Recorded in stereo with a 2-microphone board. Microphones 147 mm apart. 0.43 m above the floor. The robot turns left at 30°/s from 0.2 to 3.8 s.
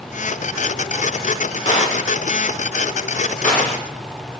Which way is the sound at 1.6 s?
55° left (ahead or behind).